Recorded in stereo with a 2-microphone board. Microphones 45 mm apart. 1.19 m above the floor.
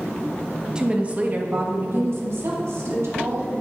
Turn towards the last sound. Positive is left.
turn(degrees=-80)